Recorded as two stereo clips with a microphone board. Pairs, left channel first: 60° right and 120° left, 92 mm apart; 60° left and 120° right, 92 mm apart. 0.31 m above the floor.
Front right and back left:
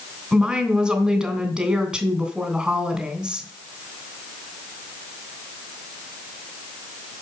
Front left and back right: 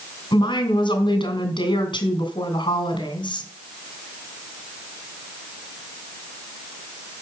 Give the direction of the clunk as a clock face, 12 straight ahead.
I don't hear a clunk.